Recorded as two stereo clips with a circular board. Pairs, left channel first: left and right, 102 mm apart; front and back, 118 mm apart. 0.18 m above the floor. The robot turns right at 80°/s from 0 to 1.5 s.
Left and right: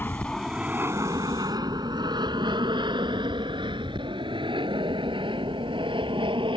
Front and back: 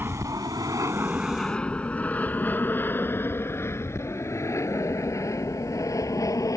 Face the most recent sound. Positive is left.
turn(degrees=-60)